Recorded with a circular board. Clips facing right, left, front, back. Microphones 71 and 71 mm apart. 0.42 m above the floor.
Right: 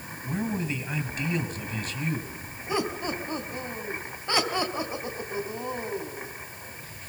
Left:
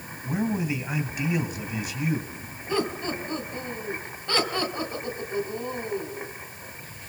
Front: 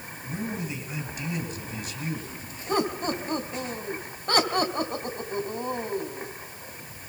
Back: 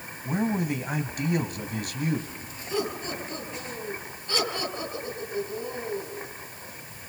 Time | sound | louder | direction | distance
0.2 | a man speaking | left 3 dB, back 7 dB | 170° left | 3 m
2.7 | laughter | left 1 dB, front 4 dB | 20° right | 3.5 m